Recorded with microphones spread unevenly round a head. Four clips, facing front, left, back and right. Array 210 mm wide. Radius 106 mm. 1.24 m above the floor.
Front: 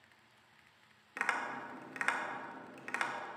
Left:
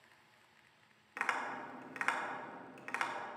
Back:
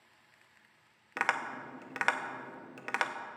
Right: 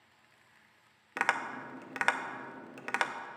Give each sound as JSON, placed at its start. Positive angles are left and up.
{"t": 1.2, "sound": "tapping", "azimuth_deg": -130, "distance_m": 0.7}